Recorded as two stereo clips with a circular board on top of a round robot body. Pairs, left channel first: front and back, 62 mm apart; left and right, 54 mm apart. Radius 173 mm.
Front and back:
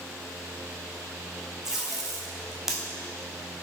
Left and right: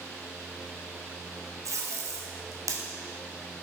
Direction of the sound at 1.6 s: 95° right.